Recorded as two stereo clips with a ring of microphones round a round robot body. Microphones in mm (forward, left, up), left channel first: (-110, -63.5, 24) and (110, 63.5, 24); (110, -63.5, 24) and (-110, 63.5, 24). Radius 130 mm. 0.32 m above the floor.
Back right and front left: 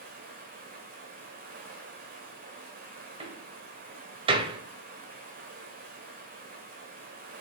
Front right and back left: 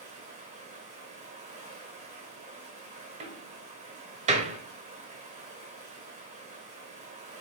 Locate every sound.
0.0 s running water: 85° left, 2 m
3.2 s a door slam: 95° left, 1.3 m